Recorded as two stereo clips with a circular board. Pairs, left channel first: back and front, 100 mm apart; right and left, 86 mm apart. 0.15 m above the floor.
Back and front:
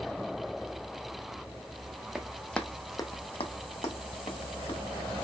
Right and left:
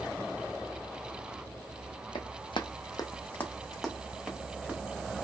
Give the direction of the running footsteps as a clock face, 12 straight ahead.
3 o'clock.